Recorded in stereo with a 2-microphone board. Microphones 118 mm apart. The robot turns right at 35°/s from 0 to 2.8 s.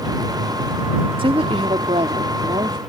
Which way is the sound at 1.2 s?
120° right.